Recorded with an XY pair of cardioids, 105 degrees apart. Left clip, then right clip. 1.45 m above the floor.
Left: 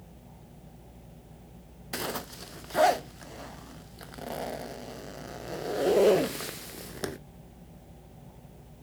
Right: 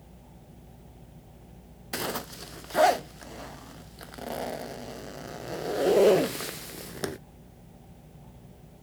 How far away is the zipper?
About 0.7 m.